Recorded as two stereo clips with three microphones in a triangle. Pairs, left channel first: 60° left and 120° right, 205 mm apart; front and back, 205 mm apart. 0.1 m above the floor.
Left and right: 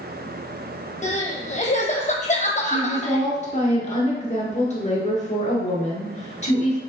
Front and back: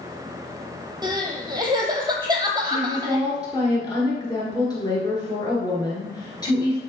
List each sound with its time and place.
1.0 s crying: 110° left, 1.0 m
2.6 s a woman speaking: 55° left, 1.7 m